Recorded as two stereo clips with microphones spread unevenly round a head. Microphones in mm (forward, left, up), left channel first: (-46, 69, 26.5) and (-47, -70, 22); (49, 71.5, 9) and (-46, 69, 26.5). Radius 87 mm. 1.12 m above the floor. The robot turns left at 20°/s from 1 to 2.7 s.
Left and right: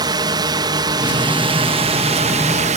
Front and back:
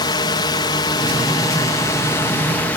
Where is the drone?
35° right; by 2.8 s 65° right.